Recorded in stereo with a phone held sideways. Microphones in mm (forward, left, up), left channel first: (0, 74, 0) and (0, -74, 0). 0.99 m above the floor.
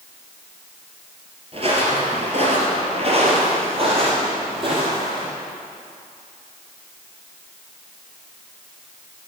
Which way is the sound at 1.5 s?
45° right (ahead or behind).